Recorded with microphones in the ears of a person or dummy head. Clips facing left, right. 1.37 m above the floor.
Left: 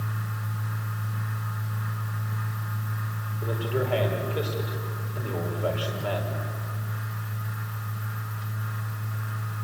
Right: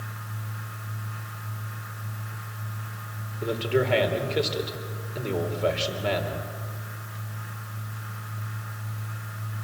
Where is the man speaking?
35° right (ahead or behind), 4.5 m.